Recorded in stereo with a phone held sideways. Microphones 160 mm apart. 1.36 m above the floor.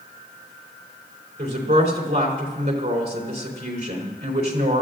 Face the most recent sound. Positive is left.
turn(degrees=-75)  # may be behind; listen again after turning